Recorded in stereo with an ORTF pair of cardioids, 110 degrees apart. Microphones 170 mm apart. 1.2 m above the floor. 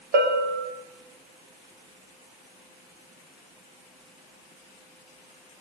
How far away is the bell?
About 2.5 m.